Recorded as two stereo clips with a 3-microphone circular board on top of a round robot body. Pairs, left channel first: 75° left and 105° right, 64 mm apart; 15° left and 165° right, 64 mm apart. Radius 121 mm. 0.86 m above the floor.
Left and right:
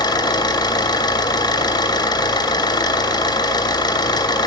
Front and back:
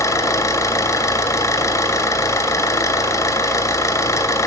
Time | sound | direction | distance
0.0 | an engine running | 60° left | 2 m